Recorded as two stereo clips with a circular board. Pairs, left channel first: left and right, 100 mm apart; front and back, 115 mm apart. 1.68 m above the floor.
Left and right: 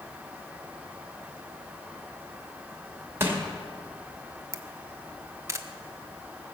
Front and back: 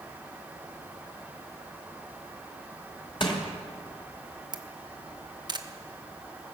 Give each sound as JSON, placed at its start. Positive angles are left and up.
{"t": 3.2, "sound": "crushing", "azimuth_deg": -30, "distance_m": 2.0}
{"t": 4.5, "sound": "a camera shutter", "azimuth_deg": -140, "distance_m": 0.8}